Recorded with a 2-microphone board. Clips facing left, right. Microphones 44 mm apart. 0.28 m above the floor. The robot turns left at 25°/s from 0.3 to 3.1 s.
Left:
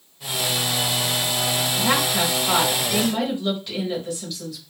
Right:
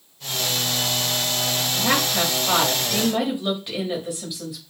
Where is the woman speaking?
10° right (ahead or behind), 1.0 m; by 4.6 s 20° right (ahead or behind), 1.0 m.